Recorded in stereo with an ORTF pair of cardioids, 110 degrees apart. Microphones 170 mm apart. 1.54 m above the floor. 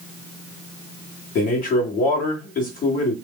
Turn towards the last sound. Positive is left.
turn(degrees=55)